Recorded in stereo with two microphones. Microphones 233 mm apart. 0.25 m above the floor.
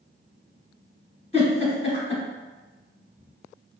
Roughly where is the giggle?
Left.